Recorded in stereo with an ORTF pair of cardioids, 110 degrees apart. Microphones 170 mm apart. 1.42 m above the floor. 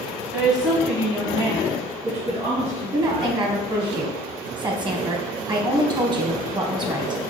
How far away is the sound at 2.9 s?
About 1.3 m.